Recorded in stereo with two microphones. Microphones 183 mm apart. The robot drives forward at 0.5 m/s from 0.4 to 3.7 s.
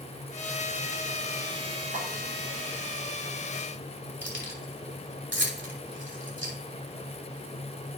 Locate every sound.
1.9 s a snare drum: 70° right (ahead or behind), 3.5 m
4.2 s keys jangling: 75° right (ahead or behind), 3.5 m